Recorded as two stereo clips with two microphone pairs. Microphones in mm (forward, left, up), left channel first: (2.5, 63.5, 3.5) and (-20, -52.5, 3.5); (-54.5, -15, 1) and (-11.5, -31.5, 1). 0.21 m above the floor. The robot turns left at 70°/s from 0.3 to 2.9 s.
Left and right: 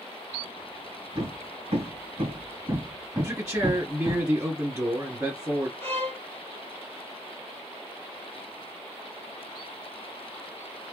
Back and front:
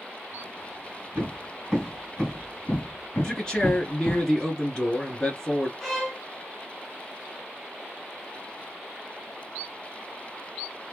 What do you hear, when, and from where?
1.1 s hammering: 60° right, 2 m; by 4.2 s 175° left, 2 m
3.2 s a man speaking: 155° right, 1.8 m
5.8 s a violin: 105° left, 1.5 m